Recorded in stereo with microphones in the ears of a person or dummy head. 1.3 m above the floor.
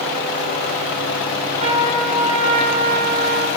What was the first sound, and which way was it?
A trumpet, 30° right (ahead or behind).